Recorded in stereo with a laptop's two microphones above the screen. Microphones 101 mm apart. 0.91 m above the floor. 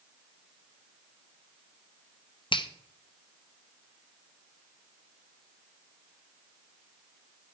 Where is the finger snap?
60° left (ahead or behind), 0.7 m.